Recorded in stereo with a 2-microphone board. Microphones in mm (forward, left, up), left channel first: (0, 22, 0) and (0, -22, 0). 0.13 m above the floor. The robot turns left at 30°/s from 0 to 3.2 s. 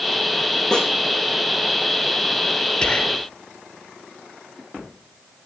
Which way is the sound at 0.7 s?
10° left (ahead or behind).